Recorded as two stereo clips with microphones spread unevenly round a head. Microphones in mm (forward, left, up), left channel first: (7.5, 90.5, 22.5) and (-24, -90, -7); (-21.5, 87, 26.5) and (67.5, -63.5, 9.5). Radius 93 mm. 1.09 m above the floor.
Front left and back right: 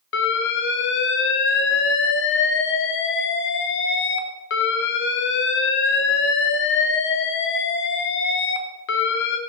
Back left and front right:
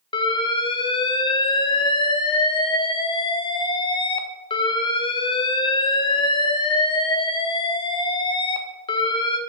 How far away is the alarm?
About 0.6 m.